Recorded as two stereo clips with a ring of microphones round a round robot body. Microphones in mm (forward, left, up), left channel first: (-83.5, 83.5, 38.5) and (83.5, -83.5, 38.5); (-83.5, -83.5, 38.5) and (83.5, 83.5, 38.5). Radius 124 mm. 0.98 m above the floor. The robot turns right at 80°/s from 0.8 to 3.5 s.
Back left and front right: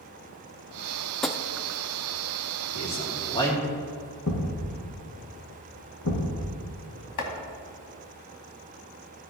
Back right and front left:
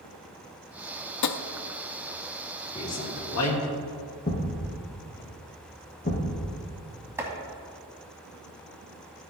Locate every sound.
1.2 s tapping: 140° right, 0.5 m; by 1.4 s 125° right, 0.5 m
2.7 s a man speaking: 155° left, 2.5 m; by 3.7 s 145° right, 2.5 m
4.3 s a thud: 170° left, 4 m
7.2 s chopping: 125° left, 1.8 m